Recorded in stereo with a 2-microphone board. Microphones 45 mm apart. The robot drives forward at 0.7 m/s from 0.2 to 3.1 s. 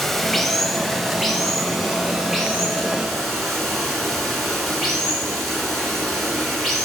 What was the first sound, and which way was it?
Running water, 5° left (ahead or behind).